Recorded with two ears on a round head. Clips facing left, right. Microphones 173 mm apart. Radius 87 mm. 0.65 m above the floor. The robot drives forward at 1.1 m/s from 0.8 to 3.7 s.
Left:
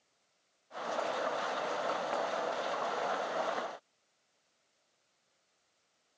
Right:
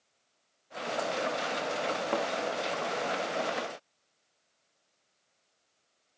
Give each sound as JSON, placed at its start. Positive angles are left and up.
{"t": 2.1, "sound": "a thud", "side_deg": -50, "distance_m": 2.5}